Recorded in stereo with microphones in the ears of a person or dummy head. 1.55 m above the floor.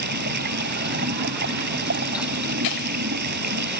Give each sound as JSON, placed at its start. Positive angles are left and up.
{"t": 0.0, "sound": "running water", "side_deg": -55}